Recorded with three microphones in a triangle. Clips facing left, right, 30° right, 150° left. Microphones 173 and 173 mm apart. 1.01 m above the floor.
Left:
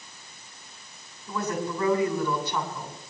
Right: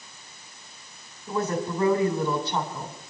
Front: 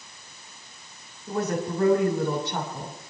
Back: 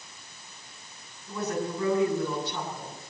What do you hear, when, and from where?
1.3 s a woman speaking: 30° right, 3.5 m